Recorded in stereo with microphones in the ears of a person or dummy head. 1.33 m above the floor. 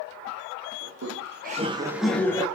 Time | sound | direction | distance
0.8 | laughter | 65° right (ahead or behind) | 1.1 m